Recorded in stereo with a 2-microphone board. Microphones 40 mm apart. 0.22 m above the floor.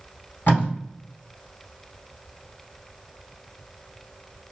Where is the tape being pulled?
55° left (ahead or behind), 1.5 m.